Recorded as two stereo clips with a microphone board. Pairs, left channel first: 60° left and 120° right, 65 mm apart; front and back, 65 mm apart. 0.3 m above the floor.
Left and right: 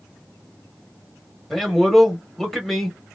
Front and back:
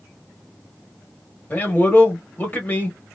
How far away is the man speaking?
About 1.1 m.